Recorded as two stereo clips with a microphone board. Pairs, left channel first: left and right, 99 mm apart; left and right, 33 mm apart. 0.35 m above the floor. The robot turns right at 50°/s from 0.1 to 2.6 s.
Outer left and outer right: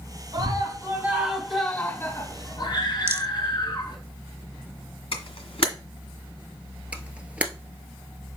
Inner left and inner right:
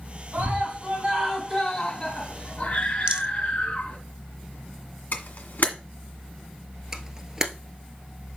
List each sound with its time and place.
0.3 s a scream: 55° right, 2.5 m; by 4.0 s 60° left, 2.5 m
3.1 s a rattle: 25° right (ahead or behind), 0.6 m
5.1 s a camera shutter: 75° left (ahead or behind), 1.9 m
6.9 s a camera shutter: 15° right (ahead or behind), 1.2 m